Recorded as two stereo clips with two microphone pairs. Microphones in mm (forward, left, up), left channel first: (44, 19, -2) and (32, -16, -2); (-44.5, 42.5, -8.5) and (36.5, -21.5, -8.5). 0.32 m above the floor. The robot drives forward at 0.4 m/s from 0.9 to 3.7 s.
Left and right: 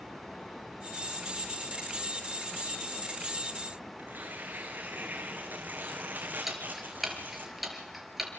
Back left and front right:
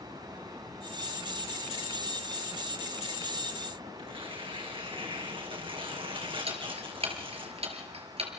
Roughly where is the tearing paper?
Right.